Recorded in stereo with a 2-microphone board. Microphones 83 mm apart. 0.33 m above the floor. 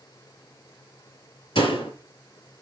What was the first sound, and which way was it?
A door slam, 80° left.